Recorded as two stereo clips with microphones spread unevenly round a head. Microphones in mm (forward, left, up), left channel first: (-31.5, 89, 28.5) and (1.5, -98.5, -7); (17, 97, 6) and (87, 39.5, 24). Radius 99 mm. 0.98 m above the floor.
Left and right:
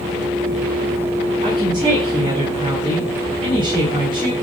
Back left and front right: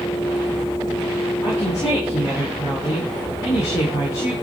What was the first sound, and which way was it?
A woman speaking, 145° right.